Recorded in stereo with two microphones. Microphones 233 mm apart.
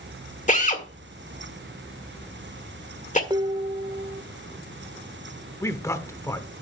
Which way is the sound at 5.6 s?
10° left (ahead or behind).